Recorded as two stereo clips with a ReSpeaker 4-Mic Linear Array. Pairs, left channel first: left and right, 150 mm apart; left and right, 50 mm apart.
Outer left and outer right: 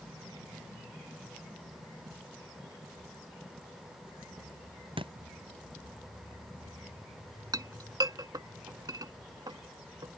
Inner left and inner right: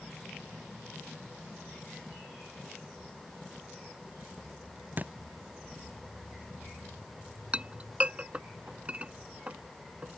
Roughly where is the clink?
Right.